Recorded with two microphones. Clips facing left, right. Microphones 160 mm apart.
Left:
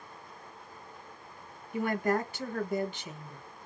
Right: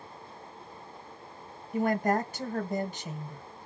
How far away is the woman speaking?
About 1.4 m.